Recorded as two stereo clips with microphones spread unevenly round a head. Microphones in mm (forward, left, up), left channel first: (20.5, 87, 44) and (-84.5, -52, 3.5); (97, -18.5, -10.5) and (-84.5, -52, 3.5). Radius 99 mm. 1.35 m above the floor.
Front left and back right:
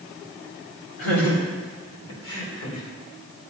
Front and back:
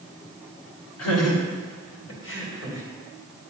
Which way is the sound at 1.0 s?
20° left.